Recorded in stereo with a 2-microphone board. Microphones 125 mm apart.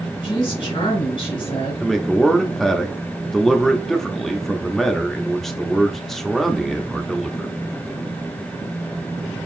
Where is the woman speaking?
45° left (ahead or behind), 2.5 m.